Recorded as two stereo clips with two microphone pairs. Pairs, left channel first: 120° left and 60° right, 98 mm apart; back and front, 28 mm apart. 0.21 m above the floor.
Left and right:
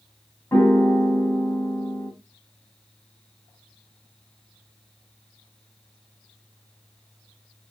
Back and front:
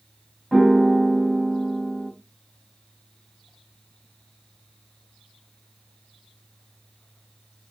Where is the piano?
90° left, 1.7 m.